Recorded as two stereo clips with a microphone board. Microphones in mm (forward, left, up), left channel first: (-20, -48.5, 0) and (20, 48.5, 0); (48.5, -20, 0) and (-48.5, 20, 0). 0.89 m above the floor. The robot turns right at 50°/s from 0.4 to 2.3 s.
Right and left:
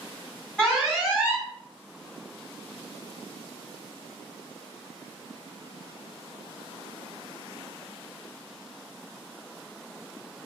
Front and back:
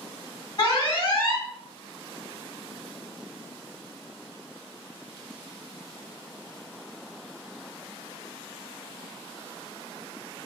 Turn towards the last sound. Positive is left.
turn(degrees=55)